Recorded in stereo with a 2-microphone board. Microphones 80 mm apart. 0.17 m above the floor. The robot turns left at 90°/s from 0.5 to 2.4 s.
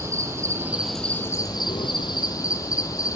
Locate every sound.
0.0 s an insect: 145° right, 0.8 m; by 3.2 s 45° left, 0.8 m